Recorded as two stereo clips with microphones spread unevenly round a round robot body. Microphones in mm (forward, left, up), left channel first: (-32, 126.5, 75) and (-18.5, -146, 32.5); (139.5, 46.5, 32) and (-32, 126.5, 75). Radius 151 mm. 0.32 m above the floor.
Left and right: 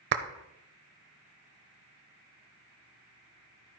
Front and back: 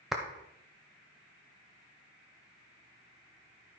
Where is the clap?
105° right, 1.0 m.